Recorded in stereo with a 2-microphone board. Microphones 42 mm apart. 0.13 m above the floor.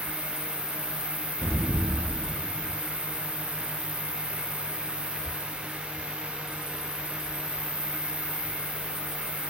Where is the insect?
80° right, 2 m.